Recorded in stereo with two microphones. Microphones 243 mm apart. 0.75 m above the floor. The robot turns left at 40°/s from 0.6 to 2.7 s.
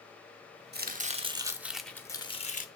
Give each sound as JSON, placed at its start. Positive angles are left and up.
{"t": 0.7, "sound": "chopping", "azimuth_deg": -135, "distance_m": 0.6}